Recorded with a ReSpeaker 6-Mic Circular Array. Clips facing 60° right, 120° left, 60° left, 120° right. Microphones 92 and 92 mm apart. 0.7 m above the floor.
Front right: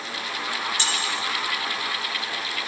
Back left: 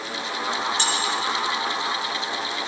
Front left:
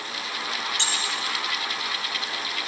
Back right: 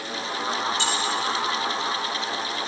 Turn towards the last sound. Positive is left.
turn(degrees=75)